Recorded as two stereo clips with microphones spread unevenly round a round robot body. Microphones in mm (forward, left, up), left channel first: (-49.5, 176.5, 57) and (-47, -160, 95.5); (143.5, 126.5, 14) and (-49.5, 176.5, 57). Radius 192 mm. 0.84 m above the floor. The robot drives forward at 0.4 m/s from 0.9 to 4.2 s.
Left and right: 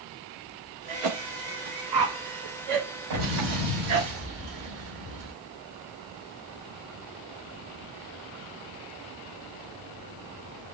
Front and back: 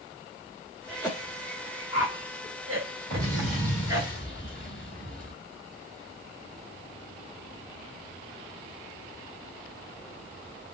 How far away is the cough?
About 1.1 m.